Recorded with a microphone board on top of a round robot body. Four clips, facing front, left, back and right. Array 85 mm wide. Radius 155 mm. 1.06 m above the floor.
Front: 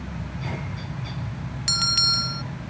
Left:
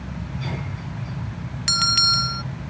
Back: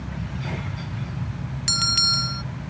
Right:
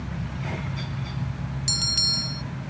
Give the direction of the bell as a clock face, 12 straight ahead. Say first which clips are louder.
Left 9 dB, back 1 dB; 9 o'clock.